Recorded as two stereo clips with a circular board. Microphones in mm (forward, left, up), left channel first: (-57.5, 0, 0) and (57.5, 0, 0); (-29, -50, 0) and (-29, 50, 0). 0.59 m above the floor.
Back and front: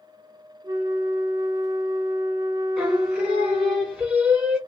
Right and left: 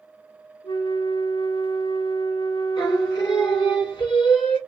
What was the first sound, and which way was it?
A flute, 60° right.